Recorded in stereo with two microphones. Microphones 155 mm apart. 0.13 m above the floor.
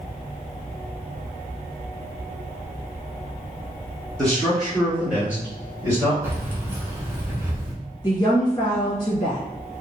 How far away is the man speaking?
About 1.8 m.